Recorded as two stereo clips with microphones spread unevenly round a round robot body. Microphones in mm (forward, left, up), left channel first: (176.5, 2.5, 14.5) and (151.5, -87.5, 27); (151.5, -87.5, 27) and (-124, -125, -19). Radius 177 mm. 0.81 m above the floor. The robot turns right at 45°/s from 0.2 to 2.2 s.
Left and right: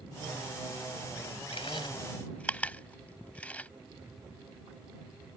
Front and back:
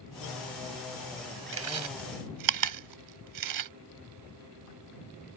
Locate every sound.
1.5 s chewing: 130° left; by 3.7 s 160° left